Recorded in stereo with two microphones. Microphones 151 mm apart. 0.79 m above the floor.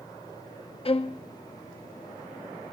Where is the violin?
40° left (ahead or behind), 0.5 m.